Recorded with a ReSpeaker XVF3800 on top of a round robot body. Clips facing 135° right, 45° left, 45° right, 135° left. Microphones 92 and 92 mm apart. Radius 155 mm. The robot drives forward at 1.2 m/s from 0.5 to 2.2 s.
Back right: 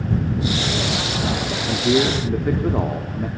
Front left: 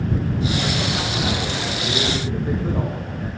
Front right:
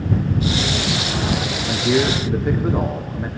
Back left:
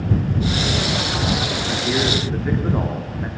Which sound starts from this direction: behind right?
A man speaking, at 1.6 s.